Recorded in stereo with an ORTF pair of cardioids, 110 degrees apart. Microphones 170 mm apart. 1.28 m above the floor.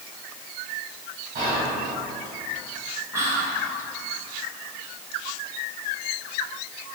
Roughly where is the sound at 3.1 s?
Ahead.